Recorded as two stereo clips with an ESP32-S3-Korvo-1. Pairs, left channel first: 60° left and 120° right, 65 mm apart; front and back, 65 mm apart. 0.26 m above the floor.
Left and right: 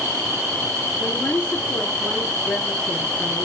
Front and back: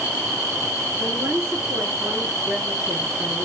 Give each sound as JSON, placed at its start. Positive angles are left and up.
{"t": 1.0, "sound": "a woman speaking", "azimuth_deg": 125, "distance_m": 4.0}